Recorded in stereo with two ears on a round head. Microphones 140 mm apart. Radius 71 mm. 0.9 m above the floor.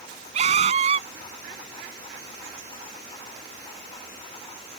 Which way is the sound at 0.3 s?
40° right (ahead or behind).